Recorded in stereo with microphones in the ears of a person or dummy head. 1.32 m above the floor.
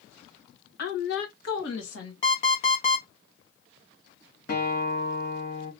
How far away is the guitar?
About 1.3 m.